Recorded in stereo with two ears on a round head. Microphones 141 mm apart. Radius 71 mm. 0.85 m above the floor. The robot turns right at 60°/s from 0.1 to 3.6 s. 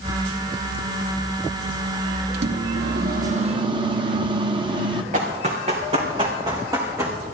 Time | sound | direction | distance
2.3 | a microwave | 105° right | 0.9 m
5.1 | running footsteps | 45° right (ahead or behind) | 3.5 m